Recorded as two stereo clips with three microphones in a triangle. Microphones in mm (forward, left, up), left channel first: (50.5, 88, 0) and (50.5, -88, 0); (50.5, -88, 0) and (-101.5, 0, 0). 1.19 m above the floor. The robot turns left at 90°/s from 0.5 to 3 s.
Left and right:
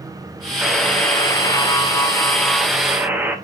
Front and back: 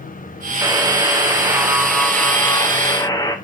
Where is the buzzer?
175° right, 0.5 m; by 3.4 s 30° right, 0.5 m.